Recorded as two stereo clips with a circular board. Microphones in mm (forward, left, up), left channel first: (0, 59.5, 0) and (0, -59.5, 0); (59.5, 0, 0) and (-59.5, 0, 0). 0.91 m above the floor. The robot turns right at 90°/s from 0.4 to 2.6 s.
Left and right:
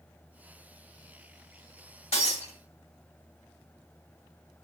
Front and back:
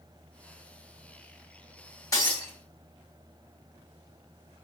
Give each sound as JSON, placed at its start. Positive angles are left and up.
{"t": 2.1, "sound": "breaking glass", "azimuth_deg": 60, "distance_m": 0.9}